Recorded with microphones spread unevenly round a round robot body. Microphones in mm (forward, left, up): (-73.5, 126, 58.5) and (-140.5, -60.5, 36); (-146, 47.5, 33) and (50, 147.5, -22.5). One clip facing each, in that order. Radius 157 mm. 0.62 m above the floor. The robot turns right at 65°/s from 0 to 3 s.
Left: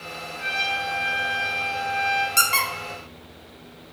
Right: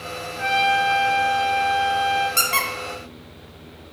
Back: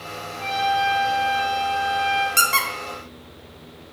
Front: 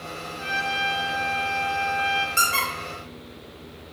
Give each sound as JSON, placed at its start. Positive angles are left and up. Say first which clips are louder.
{"t": 0.4, "sound": "a trumpet", "louder": "right 11 dB, back 9 dB", "azimuth_deg": -105, "distance_m": 0.8}
{"t": 2.4, "sound": "a squeak", "louder": "right 2 dB, back 2 dB", "azimuth_deg": 160, "distance_m": 0.8}